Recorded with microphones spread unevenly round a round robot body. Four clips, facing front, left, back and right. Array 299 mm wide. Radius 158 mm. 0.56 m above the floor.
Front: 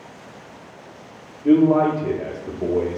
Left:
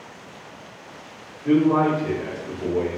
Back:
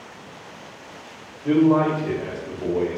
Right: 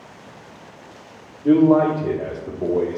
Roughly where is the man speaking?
Ahead right.